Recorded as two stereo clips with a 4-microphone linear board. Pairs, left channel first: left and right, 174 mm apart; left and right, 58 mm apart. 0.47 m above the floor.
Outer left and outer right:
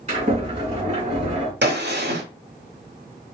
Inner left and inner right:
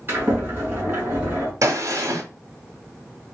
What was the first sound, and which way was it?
A sliding door, 40° right (ahead or behind).